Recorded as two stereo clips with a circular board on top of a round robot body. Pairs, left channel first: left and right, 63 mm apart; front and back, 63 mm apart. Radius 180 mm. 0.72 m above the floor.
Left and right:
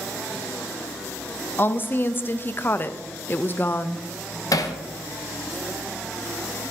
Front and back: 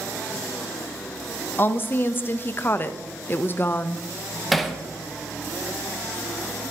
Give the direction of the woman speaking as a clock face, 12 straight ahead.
10 o'clock.